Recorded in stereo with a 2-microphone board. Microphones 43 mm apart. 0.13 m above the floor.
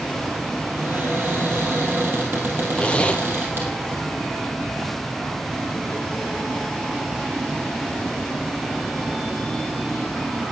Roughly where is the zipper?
Left.